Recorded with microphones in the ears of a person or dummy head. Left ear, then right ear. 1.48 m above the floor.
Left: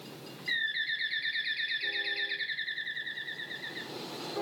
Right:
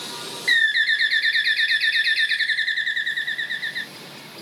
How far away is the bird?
About 0.5 m.